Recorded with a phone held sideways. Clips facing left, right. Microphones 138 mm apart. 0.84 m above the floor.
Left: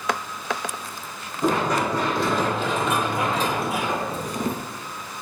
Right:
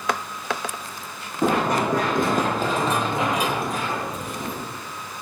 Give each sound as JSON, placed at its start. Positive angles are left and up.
{"t": 1.4, "sound": "running footsteps", "side_deg": -60, "distance_m": 3.0}